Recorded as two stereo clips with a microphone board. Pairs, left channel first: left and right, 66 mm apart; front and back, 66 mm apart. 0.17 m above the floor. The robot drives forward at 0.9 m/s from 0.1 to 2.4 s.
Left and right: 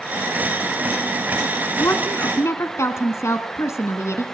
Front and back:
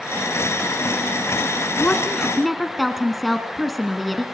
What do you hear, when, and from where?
1.8 s a woman speaking: 60° left, 1.5 m; by 4.2 s 90° left, 1.4 m